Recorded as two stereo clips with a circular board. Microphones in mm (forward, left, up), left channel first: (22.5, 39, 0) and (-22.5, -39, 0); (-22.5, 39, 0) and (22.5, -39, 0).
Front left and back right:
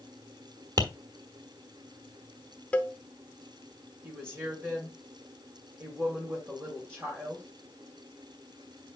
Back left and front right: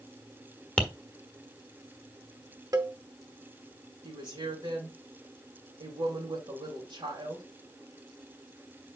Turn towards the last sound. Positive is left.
turn(degrees=-55)